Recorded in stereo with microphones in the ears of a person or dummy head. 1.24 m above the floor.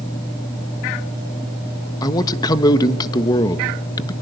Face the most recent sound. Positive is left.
turn(degrees=20)  # may be behind; listen again after turning